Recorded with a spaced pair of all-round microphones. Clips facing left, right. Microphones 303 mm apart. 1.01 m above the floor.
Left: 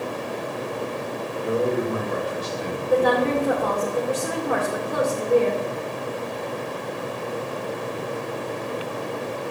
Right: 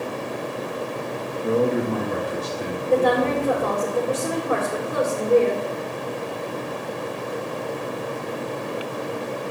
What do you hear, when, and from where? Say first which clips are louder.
1.4 s a man speaking: right 2 dB; 50° right (ahead or behind), 1.5 m; by 3.9 s 65° right (ahead or behind), 3.5 m
2.9 s a woman speaking: even; 15° right (ahead or behind), 3.5 m